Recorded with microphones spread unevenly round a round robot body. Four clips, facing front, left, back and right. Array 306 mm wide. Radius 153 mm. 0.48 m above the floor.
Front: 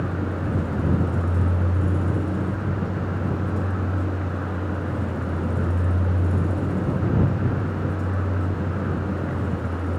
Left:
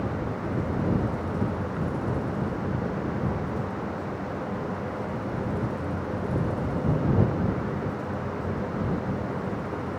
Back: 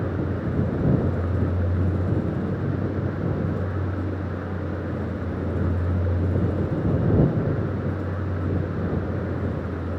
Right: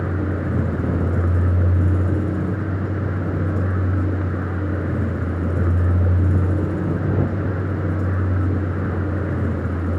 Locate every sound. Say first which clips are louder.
0.0 s a vehicle: right 5 dB, even; 75° right